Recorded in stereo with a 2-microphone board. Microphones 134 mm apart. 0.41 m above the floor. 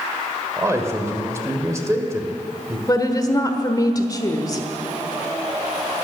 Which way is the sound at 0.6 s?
20° right (ahead or behind).